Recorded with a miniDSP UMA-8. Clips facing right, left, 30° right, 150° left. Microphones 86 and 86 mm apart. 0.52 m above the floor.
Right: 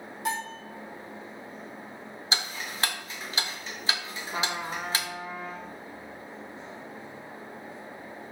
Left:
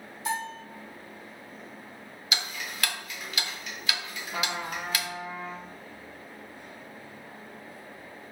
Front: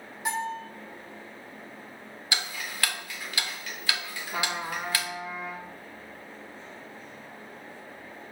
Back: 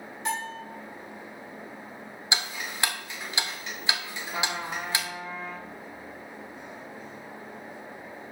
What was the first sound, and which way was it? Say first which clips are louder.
A bell: even, front 2 dB; 110° right.